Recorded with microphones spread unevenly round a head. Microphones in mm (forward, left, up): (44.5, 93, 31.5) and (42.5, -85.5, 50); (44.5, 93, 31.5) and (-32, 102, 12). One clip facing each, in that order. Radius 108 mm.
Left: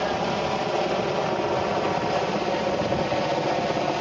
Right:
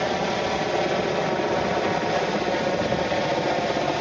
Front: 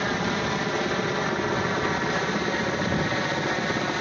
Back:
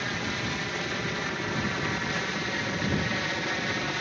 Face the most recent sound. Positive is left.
turn(degrees=-5)